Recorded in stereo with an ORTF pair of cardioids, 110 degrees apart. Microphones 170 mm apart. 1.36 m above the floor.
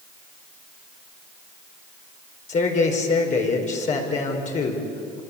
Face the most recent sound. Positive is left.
turn(degrees=45)